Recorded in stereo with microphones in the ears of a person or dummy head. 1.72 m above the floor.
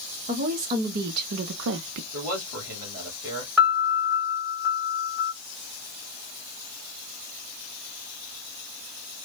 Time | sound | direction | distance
0.3 | a woman speaking | 40° right (ahead or behind) | 1.2 m
2.1 | a man speaking | 20° right (ahead or behind) | 2.5 m
3.6 | a piano | 5° right (ahead or behind) | 1.9 m